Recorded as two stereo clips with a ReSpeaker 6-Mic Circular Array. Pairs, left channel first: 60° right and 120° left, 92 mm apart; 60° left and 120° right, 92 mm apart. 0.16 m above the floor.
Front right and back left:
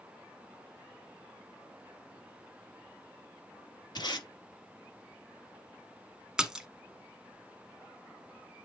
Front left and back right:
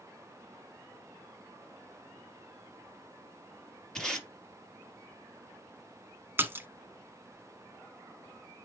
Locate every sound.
4.0 s tape being pulled: 25° right, 3 m
6.4 s a splash: 165° right, 1.0 m